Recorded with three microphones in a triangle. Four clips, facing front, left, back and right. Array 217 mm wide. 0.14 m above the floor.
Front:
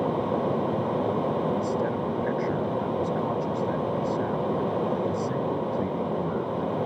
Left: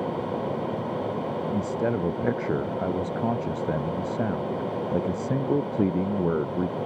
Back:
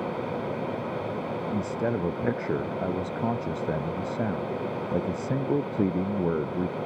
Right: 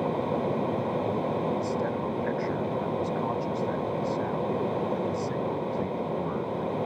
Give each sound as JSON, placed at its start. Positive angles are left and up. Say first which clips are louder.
{"t": 1.5, "sound": "a man speaking", "louder": "left 2 dB, front 2 dB", "azimuth_deg": 120}